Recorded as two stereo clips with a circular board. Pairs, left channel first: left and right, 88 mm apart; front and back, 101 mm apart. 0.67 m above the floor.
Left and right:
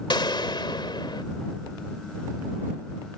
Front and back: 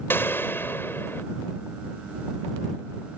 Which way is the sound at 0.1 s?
65° left.